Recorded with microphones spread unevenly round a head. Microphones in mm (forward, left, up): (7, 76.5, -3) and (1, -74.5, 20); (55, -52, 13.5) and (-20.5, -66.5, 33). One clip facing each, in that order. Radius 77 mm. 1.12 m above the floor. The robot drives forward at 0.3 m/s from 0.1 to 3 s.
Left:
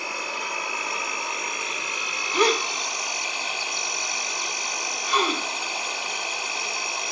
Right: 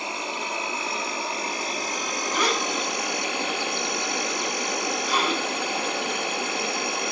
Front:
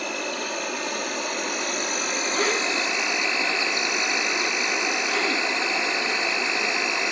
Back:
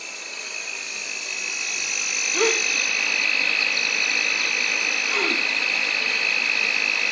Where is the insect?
25° right, 1.3 m; by 7.1 s 65° right, 0.7 m.